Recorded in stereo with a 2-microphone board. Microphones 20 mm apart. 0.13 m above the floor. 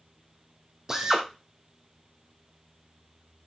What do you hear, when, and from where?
0.9 s a drill: 25° right (ahead or behind), 2.5 m